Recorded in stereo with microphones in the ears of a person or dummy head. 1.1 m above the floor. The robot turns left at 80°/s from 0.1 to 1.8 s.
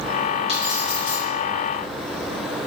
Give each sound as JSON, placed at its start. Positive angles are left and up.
{"t": 0.5, "sound": "keys jangling", "azimuth_deg": -150, "distance_m": 1.1}